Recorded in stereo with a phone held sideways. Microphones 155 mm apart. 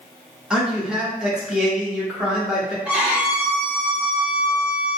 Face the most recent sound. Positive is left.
turn(degrees=-10)  # may be behind; listen again after turning